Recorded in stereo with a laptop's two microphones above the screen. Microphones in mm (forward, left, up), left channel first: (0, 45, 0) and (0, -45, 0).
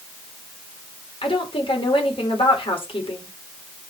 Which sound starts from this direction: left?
A woman speaking, at 1.2 s.